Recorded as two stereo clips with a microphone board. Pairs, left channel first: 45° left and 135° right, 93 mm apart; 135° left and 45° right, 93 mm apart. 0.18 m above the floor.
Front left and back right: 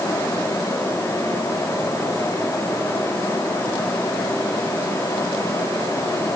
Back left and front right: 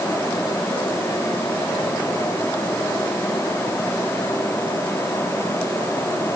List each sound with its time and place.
Only background noise.